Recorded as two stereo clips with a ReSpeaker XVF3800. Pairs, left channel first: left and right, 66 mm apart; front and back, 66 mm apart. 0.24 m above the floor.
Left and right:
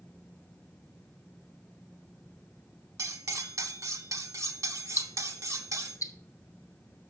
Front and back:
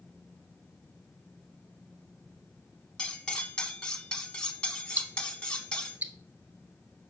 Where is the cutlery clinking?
70° right, 1.0 m.